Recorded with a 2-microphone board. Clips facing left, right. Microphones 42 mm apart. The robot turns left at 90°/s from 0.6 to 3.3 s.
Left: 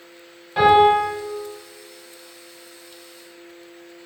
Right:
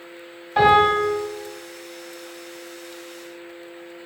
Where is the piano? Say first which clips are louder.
Left 2 dB; 165° right, 1.8 m; by 1.1 s 150° left, 1.8 m.